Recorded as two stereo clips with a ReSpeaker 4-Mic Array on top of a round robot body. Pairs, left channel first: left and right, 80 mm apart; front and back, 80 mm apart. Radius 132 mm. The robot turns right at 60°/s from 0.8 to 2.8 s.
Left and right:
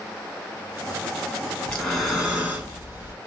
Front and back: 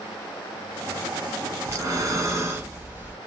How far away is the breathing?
About 1.5 m.